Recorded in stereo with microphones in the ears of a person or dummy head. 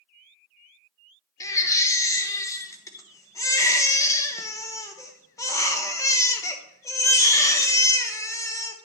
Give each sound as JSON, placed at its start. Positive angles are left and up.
{"t": 1.4, "sound": "a baby crying", "side_deg": 10, "distance_m": 0.8}